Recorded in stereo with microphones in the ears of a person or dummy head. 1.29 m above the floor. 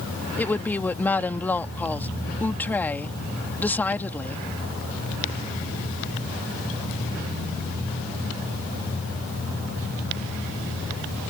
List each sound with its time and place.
0.4 s a woman speaking: 10° left (ahead or behind)